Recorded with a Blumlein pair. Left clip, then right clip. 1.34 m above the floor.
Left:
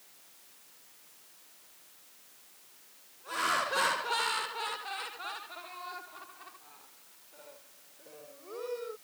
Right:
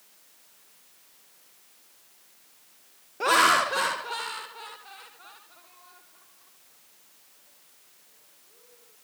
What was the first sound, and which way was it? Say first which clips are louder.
Laughter: right 11 dB; 45° right.